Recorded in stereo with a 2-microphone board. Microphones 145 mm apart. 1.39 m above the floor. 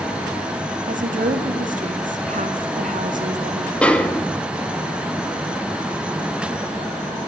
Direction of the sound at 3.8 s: 5° left (ahead or behind).